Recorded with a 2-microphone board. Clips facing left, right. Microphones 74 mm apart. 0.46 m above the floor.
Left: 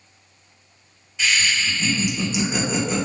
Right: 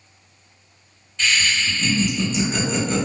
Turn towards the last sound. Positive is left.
turn(degrees=10)  # may be behind; listen again after turning